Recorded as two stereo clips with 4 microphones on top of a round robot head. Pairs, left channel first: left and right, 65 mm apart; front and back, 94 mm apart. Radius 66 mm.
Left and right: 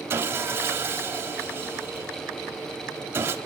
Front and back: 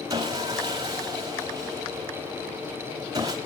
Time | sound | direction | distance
0.1 | sawing | 130° right | 0.9 m